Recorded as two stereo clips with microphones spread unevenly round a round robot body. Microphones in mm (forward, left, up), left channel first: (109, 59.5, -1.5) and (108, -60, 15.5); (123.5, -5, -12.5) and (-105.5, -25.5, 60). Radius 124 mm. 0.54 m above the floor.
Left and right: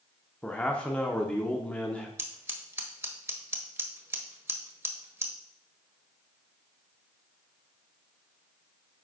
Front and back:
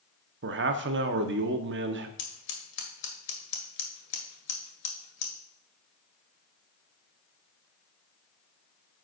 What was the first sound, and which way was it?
A man speaking, 155° left.